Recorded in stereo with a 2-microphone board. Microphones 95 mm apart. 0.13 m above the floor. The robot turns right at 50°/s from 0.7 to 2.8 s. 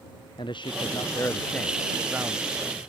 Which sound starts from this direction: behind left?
A man speaking, at 0.4 s.